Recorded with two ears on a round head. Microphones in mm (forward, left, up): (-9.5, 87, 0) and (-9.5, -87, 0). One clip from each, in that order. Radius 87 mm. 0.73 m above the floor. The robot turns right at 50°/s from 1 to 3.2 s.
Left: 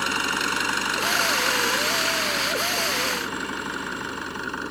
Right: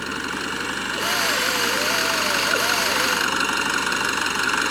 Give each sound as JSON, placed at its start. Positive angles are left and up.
{"t": 0.0, "sound": "an engine running", "azimuth_deg": 145}